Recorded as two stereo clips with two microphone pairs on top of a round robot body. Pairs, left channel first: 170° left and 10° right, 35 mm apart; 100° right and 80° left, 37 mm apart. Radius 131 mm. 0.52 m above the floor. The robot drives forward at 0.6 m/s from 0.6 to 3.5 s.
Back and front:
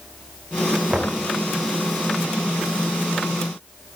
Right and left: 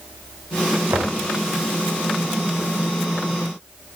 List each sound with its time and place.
0.9 s knocking: 55° left, 2.5 m; by 1.2 s 60° left, 2.5 m